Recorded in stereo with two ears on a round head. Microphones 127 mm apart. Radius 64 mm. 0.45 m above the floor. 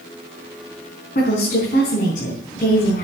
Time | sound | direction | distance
1.1 | a woman speaking | 60° left (ahead or behind) | 5 m